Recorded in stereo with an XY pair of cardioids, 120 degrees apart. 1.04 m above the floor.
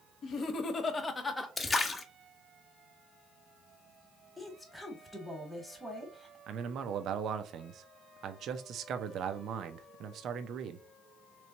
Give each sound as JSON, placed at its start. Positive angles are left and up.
{"t": 0.2, "sound": "laughter", "azimuth_deg": 60, "distance_m": 1.1}
{"t": 1.6, "sound": "a splash", "azimuth_deg": 25, "distance_m": 0.9}
{"t": 4.4, "sound": "a woman speaking", "azimuth_deg": 5, "distance_m": 1.2}
{"t": 6.5, "sound": "a man speaking", "azimuth_deg": -60, "distance_m": 0.5}